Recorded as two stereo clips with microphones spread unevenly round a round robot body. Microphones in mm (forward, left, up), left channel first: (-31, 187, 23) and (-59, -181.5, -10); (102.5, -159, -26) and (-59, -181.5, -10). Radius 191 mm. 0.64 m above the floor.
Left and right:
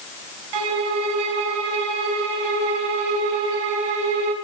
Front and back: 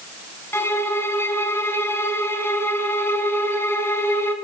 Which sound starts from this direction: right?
A violin, at 0.5 s.